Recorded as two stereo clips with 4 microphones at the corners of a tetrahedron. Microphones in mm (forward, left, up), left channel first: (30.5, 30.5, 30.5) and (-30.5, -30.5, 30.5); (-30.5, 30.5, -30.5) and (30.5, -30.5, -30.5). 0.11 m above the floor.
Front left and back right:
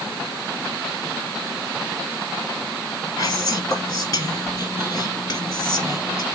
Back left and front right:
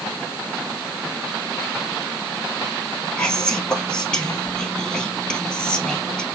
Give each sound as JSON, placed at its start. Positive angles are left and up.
{"t": 3.2, "sound": "whispering", "azimuth_deg": 60, "distance_m": 1.9}